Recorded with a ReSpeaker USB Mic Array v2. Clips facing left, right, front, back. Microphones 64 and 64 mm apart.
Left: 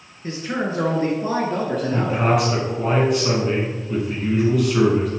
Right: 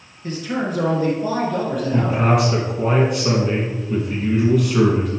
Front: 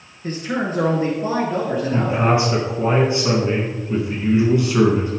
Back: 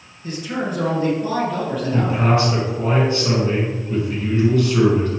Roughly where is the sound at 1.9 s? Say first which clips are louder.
Right 2 dB, even; ahead.